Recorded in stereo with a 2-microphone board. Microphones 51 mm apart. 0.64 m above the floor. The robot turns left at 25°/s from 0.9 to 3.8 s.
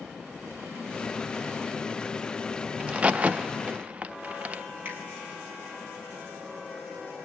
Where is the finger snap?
35° right (ahead or behind), 6 m.